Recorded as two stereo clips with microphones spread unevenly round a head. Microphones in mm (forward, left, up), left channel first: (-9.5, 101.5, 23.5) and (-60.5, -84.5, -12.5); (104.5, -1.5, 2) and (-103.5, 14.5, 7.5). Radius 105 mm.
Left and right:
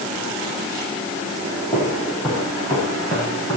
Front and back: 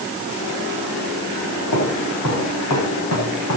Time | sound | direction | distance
1.7 | footsteps | straight ahead | 8 m